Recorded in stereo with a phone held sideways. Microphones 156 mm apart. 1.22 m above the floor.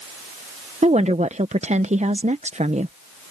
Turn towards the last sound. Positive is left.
turn(degrees=-45)  # may be behind; listen again after turning